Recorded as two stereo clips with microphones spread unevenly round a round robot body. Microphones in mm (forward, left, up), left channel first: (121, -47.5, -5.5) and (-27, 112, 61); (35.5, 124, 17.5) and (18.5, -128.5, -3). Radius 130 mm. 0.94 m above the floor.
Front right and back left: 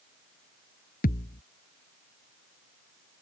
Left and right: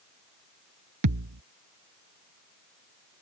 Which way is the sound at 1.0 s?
115° right.